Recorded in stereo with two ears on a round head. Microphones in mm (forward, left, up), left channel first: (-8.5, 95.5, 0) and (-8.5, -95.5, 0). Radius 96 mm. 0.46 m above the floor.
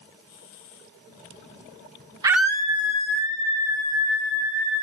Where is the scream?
15° right (ahead or behind), 0.8 m; by 4.8 s 70° left (ahead or behind), 3.5 m.